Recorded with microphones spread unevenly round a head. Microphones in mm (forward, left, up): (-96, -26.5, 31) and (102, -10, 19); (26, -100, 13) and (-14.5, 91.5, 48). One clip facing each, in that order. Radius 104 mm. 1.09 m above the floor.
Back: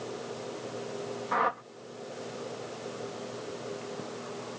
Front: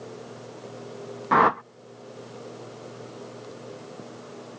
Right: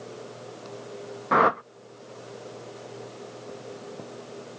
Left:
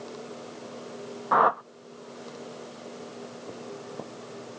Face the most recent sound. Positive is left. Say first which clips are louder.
# front 11 dB, right 2 dB
turn(degrees=-15)